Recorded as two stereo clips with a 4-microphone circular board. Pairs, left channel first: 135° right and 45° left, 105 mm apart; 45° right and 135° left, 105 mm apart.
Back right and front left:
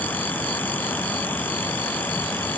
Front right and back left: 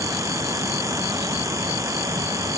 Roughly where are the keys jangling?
No keys jangling in this recording.